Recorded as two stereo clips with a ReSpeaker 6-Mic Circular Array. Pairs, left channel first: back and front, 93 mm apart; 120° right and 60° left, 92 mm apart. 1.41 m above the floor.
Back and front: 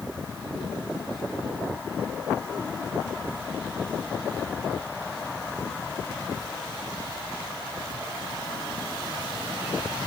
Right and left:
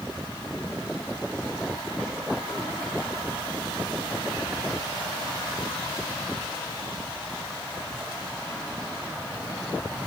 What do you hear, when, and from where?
Only background noise.